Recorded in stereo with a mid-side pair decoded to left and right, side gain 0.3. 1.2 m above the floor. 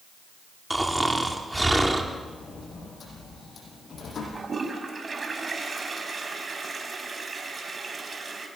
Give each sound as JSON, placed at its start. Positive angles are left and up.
{"t": 0.7, "sound": "snoring", "azimuth_deg": -10, "distance_m": 3.0}
{"t": 2.1, "sound": "a sliding door", "azimuth_deg": 65, "distance_m": 8.0}
{"t": 4.3, "sound": "a toilet flushing", "azimuth_deg": -40, "distance_m": 5.0}